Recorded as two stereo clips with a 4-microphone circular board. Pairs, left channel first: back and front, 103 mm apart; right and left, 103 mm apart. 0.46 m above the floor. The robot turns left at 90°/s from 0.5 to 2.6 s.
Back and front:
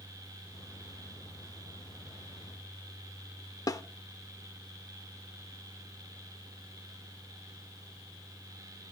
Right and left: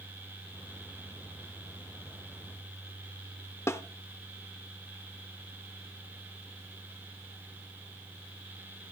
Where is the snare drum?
140° right, 0.7 m.